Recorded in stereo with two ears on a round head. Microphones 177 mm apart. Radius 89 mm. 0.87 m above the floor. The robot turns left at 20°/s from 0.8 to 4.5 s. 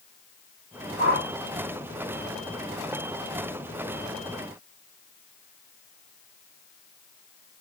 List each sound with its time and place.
1.0 s a whoosh: 70° right (ahead or behind), 1.9 m